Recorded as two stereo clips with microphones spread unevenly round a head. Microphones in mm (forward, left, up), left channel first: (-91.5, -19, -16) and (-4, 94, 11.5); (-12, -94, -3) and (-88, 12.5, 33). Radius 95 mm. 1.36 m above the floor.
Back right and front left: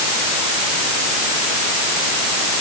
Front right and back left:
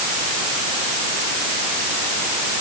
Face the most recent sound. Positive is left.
No sound to turn to.